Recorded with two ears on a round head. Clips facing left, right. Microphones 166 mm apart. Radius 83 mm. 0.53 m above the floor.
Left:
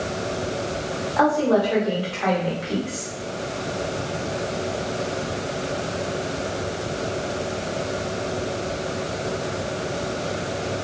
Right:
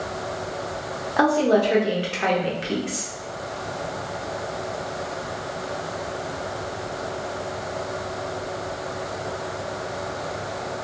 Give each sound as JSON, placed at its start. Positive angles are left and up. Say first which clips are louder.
{"t": 1.2, "sound": "a woman speaking", "louder": "right 1 dB", "side_deg": -30, "distance_m": 0.9}